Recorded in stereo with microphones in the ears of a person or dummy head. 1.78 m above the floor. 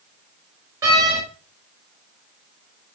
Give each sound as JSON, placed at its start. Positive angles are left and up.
{"t": 0.8, "sound": "a door slam", "side_deg": -20, "distance_m": 4.5}